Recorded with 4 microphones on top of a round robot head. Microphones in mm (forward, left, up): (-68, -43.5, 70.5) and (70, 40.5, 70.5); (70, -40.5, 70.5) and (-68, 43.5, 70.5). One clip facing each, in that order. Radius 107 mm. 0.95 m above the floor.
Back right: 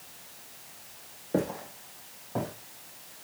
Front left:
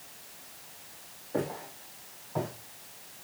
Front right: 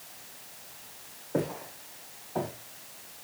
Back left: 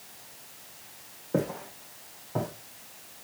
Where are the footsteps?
170° left, 3 m; by 2.5 s 155° left, 3.5 m.